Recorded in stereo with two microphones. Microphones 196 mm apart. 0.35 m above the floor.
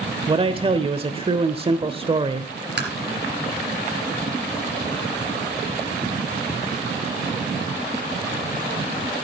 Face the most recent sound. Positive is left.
turn(degrees=-60)  # may be behind; listen again after turning